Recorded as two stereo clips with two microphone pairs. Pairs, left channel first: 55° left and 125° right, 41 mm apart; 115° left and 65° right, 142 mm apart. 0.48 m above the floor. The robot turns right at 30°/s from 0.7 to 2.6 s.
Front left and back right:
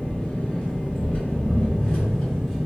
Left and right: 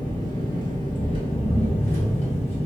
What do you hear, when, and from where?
0.0 s an engine running: 70° left, 0.8 m; by 2.7 s 125° left, 0.8 m